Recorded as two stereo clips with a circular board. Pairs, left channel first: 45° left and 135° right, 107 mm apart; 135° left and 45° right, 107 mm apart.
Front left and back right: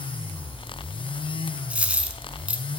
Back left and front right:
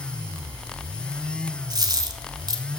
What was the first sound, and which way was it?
A dropped coin, 60° right.